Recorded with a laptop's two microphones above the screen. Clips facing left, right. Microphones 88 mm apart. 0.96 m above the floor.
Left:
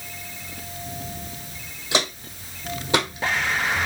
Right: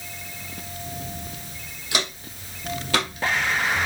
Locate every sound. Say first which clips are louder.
1.9 s footsteps: left 4 dB; 25° left (ahead or behind), 1.9 m; by 3.9 s 15° left (ahead or behind), 1.1 m